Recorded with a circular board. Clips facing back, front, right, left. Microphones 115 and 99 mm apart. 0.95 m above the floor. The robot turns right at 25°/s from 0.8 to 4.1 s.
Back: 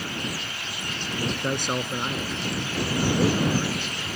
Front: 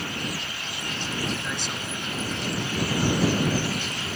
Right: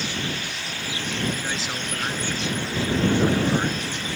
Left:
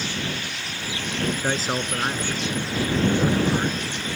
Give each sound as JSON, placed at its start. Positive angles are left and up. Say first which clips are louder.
{"t": 1.2, "sound": "a man speaking", "louder": "back 6 dB, left 5 dB", "azimuth_deg": 130}